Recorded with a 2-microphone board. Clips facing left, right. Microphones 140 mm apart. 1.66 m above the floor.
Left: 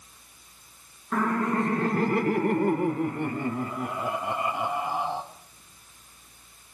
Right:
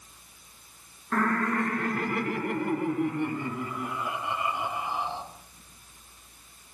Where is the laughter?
5° left (ahead or behind), 0.6 m; by 5.2 s 55° left (ahead or behind), 3.5 m.